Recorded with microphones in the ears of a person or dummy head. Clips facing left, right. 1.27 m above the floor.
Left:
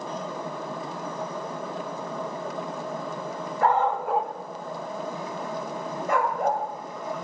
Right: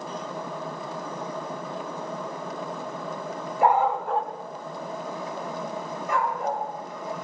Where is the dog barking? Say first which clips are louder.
Right 1 dB; 15° right (ahead or behind), 1.1 m; by 6.6 s 50° left (ahead or behind), 3 m.